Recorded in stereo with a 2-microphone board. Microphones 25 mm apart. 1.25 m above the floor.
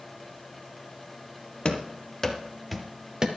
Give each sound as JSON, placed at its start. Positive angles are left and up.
{"t": 1.6, "sound": "running footsteps", "side_deg": 40, "distance_m": 1.6}